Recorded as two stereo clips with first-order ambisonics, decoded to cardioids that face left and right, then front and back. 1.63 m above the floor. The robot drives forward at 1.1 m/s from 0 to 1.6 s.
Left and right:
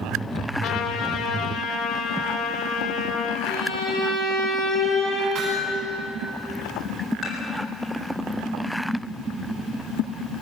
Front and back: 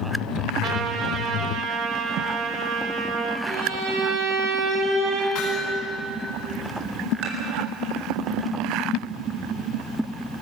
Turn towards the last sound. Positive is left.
turn(degrees=175)